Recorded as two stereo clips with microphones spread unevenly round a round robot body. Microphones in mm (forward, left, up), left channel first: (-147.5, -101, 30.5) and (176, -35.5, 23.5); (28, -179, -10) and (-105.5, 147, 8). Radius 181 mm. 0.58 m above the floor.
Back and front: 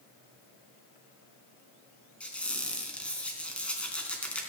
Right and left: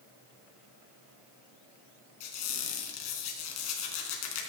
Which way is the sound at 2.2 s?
80° right.